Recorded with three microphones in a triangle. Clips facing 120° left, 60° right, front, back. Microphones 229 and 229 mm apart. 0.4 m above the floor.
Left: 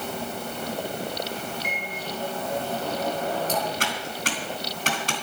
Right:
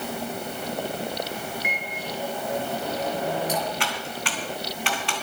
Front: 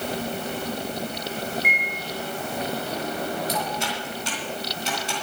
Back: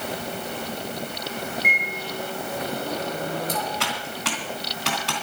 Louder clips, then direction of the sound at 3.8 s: Left 1 dB, even; 170° left.